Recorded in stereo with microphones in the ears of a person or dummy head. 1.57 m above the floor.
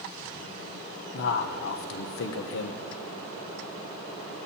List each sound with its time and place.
1.1 s a man speaking: 65° left (ahead or behind), 0.9 m